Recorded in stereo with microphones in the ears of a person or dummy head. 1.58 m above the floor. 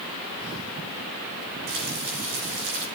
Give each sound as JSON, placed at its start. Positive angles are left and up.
{"t": 1.7, "sound": "frying", "side_deg": -50, "distance_m": 8.0}